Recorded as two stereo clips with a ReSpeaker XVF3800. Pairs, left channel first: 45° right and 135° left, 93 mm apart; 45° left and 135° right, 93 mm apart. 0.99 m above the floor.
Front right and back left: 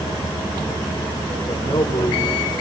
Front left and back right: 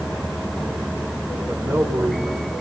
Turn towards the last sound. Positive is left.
turn(degrees=-85)